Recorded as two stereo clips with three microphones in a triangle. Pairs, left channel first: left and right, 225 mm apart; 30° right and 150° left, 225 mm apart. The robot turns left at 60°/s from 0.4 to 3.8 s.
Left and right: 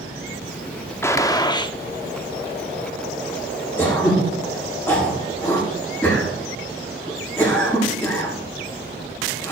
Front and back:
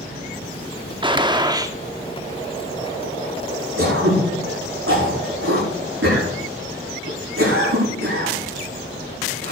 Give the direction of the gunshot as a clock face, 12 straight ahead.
7 o'clock.